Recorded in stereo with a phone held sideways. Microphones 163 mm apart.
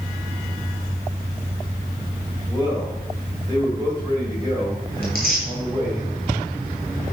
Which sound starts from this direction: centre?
Tearing paper, at 5.0 s.